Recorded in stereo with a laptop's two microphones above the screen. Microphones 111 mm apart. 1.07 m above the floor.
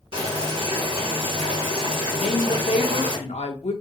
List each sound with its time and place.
0.1 s boiling: 55° right (ahead or behind), 1.0 m
2.2 s a woman speaking: 80° left, 0.6 m